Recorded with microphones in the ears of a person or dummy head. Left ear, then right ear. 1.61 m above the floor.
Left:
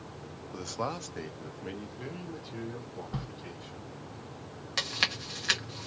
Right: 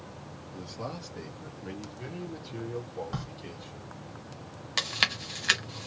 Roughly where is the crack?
Right.